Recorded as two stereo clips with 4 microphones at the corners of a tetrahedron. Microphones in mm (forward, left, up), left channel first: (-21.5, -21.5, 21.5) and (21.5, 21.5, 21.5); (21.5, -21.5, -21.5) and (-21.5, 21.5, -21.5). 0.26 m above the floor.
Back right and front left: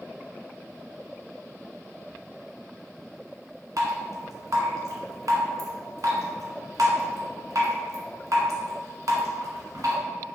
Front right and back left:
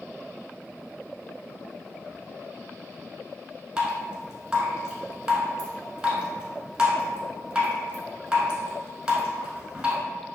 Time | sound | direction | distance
3.8 | dripping | 55° left | 0.9 m